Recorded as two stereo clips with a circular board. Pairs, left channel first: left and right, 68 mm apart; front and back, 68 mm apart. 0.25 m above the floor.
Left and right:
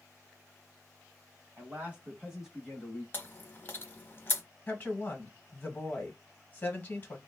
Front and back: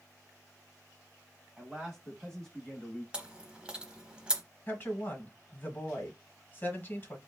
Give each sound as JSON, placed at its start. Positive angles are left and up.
{"t": 1.6, "sound": "a man speaking", "azimuth_deg": -105, "distance_m": 1.5}
{"t": 3.1, "sound": "chewing", "azimuth_deg": 115, "distance_m": 0.7}
{"t": 4.7, "sound": "a woman speaking", "azimuth_deg": 45, "distance_m": 1.3}